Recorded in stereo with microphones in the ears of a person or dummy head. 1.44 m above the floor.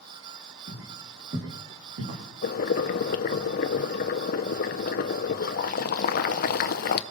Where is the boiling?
50° left (ahead or behind), 0.8 m.